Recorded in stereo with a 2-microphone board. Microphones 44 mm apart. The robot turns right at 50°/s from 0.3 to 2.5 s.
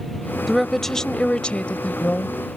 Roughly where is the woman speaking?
Ahead.